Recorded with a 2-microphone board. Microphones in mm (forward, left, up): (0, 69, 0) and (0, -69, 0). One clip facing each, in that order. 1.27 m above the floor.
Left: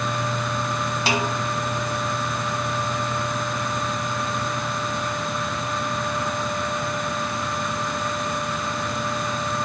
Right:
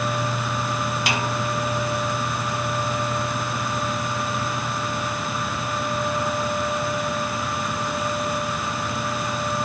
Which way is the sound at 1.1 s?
30° left (ahead or behind).